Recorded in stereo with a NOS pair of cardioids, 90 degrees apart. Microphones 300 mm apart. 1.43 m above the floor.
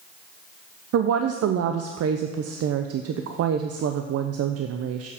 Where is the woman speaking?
55° right, 0.6 m.